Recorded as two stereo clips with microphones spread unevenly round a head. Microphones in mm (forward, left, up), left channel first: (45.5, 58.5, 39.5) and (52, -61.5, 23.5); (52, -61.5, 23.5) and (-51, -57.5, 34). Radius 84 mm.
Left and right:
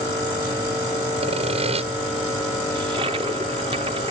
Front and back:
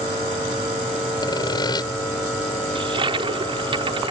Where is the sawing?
50° right.